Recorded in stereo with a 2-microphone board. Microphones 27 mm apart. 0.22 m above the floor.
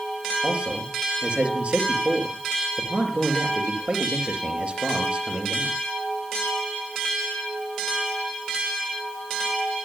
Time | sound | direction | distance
0.4 | a man speaking | 45° right (ahead or behind) | 5.5 m